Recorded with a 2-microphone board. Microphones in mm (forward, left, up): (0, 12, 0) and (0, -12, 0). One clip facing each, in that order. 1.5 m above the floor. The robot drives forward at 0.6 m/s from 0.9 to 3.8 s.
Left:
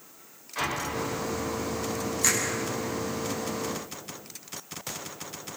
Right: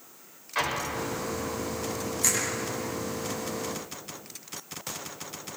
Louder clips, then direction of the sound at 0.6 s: Right 1 dB; 40° right (ahead or behind).